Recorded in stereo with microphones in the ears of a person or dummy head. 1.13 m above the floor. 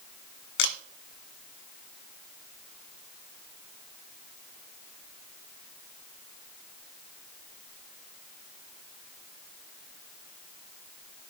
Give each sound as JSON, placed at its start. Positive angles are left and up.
{"t": 0.6, "sound": "a camera shutter", "side_deg": 55, "distance_m": 0.6}